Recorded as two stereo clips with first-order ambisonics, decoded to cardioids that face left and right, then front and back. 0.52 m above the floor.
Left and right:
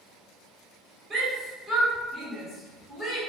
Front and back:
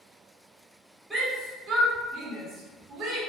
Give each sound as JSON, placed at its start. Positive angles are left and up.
{"t": 1.1, "sound": "a shout", "azimuth_deg": -110, "distance_m": 0.8}